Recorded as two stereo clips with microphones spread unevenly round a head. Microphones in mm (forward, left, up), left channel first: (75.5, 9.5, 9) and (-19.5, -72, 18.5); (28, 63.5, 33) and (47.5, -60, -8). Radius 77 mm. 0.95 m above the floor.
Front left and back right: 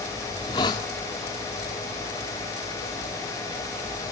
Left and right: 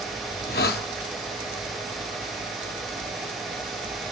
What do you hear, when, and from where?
0.3 s a hiss: 105° left, 1.6 m